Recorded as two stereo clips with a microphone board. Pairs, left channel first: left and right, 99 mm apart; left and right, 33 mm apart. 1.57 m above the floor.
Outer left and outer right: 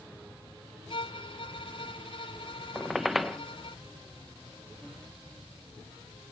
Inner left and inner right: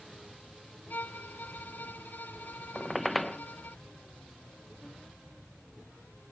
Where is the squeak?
Centre (ahead or behind).